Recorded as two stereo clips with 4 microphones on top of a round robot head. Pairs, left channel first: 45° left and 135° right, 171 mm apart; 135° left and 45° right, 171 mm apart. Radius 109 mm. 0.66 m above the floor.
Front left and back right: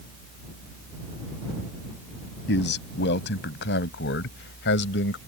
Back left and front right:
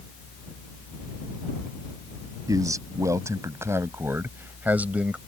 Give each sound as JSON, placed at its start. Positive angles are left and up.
{"t": 2.5, "sound": "a man speaking", "azimuth_deg": 25}